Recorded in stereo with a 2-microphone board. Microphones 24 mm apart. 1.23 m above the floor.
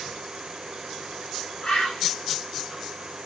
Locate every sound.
1.6 s a bird: 40° left (ahead or behind), 8.5 m